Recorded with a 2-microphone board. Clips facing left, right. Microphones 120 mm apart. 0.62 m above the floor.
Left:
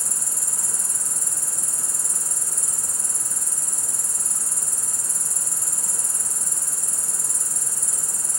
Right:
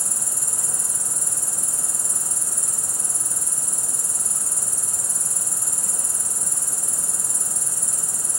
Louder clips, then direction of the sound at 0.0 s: Right 2 dB; 45° right (ahead or behind).